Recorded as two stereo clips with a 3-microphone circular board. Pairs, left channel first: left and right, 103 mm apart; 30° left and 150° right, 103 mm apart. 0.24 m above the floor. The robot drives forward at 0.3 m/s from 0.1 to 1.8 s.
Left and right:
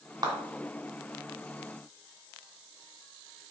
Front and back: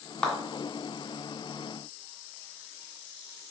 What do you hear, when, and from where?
0.2 s a clap: 55° right, 1.6 m